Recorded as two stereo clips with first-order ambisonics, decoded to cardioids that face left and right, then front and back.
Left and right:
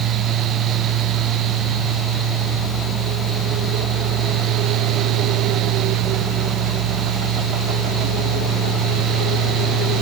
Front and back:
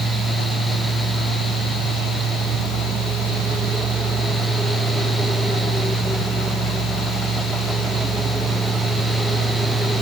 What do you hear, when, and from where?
Only background noise.